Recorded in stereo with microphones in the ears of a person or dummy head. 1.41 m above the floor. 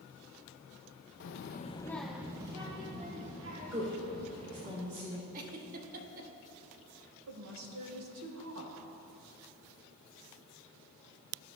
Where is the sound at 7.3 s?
75° right (ahead or behind), 1.5 m.